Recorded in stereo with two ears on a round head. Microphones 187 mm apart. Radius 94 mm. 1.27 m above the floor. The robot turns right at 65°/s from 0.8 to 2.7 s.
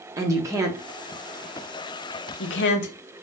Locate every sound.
0.2 s a woman speaking: 15° right (ahead or behind), 0.8 m; by 2.9 s 60° left (ahead or behind), 0.8 m